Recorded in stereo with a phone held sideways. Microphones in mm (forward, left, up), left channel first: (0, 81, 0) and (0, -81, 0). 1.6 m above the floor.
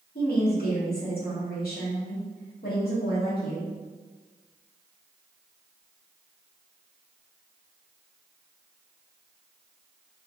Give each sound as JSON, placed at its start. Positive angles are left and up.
{"t": 0.1, "sound": "a woman speaking", "side_deg": 70, "distance_m": 1.5}